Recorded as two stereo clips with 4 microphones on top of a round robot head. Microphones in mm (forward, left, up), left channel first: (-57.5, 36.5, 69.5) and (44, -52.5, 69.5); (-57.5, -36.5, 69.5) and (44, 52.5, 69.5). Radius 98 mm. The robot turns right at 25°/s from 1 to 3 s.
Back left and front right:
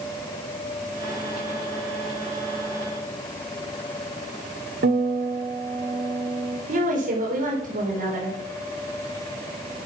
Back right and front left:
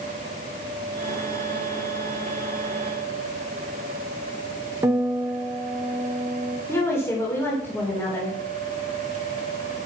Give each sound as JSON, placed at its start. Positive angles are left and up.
{"t": 4.8, "sound": "a guitar", "azimuth_deg": -30, "distance_m": 1.4}
{"t": 6.7, "sound": "a woman speaking", "azimuth_deg": -65, "distance_m": 3.5}